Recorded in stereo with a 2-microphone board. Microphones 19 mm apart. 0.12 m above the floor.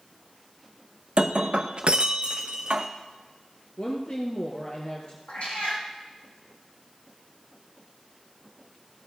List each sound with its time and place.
1.2 s breaking glass: 50° right (ahead or behind), 0.9 m
3.8 s a woman speaking: 45° left (ahead or behind), 1.6 m
5.3 s a cat meowing: 80° left, 4 m